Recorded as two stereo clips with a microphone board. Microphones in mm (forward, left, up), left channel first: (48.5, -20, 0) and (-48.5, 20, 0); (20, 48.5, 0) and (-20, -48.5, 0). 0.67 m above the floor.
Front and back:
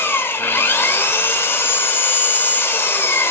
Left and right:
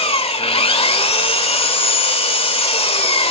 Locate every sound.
0.0 s an engine running: 45° left, 1.8 m